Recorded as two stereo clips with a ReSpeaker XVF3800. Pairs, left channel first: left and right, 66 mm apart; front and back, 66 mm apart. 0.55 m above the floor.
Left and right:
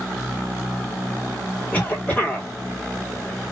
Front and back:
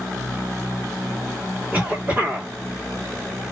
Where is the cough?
135° left, 1.3 m.